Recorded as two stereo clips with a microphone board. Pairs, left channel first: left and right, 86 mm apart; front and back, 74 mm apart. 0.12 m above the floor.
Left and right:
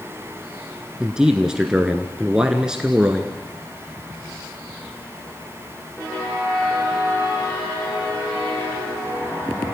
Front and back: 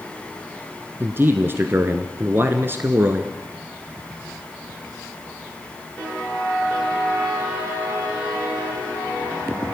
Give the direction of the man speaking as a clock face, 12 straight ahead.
5 o'clock.